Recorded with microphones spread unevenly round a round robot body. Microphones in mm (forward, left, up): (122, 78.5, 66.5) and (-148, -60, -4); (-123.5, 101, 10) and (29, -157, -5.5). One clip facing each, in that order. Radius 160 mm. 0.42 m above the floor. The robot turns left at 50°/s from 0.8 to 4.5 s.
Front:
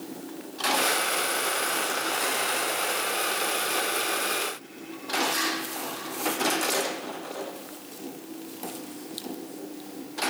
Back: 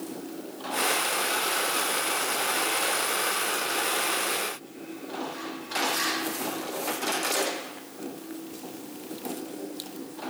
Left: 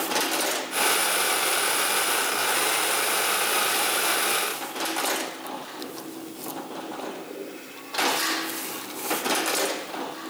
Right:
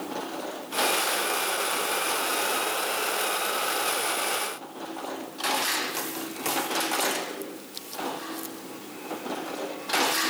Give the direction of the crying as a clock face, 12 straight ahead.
No crying in this recording.